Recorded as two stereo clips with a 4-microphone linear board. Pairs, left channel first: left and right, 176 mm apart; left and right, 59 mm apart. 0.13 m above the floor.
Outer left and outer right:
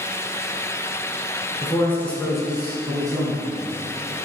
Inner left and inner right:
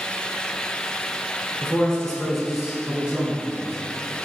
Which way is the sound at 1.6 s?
20° left (ahead or behind).